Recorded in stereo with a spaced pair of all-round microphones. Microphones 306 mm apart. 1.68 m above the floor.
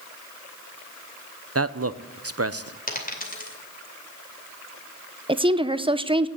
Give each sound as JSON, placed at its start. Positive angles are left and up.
{"t": 1.6, "sound": "a man speaking", "side_deg": -50, "distance_m": 0.7}
{"t": 2.9, "sound": "a dropped coin", "side_deg": 30, "distance_m": 2.5}
{"t": 5.3, "sound": "a woman speaking", "side_deg": -15, "distance_m": 0.6}